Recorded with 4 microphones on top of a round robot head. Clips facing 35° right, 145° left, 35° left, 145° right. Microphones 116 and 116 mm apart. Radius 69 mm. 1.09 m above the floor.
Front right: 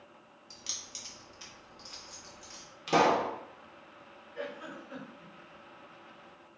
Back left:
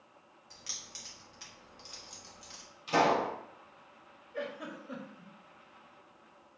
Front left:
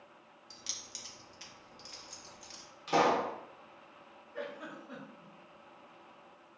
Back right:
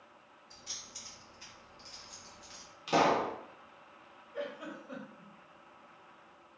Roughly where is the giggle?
Behind left.